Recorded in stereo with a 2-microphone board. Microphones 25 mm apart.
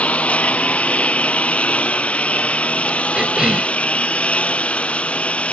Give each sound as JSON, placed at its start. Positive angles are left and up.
{"t": 0.0, "sound": "a lawn mower", "side_deg": 65}
{"t": 3.1, "sound": "a cough", "side_deg": -35}